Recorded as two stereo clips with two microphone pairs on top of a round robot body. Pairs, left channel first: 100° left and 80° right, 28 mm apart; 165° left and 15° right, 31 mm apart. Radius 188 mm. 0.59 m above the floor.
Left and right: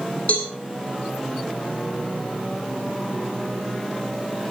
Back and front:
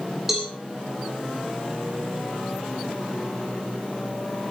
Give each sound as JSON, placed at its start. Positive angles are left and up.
{"t": 0.3, "sound": "a cowbell", "azimuth_deg": 60, "distance_m": 9.0}